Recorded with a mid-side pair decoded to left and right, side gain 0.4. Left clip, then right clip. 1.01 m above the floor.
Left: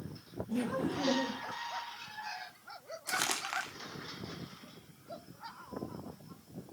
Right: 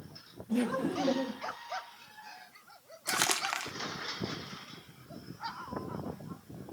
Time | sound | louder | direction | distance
0.5 | laughter | right 3 dB | 30° right | 1.6 m
3.1 | crumpling | right 4 dB | 40° right | 2.5 m